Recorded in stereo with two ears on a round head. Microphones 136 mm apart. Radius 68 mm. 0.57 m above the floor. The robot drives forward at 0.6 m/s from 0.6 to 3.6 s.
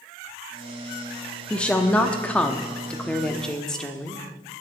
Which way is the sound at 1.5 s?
10° left (ahead or behind).